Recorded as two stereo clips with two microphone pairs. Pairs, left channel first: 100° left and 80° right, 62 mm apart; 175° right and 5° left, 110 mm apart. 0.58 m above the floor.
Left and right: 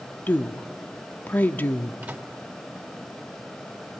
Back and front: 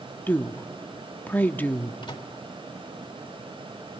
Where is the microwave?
140° right, 1.8 m.